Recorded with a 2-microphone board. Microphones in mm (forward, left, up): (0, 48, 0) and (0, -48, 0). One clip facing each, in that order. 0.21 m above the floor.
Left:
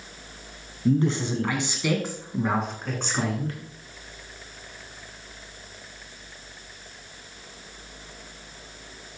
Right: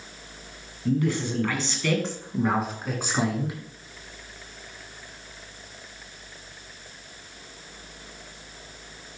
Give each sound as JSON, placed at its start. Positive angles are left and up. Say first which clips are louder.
{"t": 0.8, "sound": "a man speaking", "louder": "left 2 dB", "side_deg": 30, "distance_m": 1.5}